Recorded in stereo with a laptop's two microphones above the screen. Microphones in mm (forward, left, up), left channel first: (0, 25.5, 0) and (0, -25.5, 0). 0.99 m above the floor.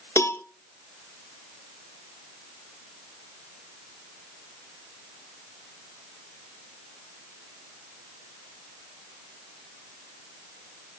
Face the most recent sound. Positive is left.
turn(degrees=60)  # may be behind; listen again after turning